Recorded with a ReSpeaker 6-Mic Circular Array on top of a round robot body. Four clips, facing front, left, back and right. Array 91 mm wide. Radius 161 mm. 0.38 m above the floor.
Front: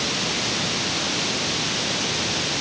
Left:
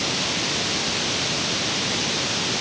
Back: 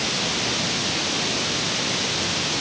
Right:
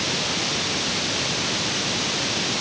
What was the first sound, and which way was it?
Only background noise.